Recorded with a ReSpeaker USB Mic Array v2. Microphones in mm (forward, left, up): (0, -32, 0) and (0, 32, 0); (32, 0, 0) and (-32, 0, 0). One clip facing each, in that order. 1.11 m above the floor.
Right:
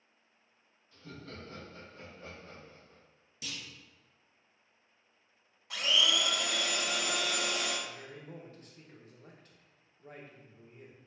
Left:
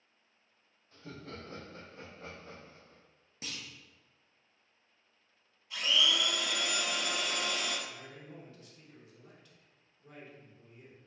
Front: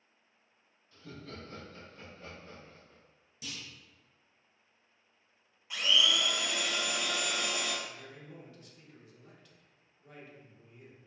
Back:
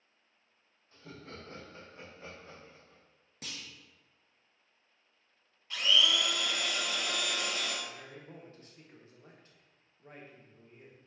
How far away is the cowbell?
I don't hear a cowbell.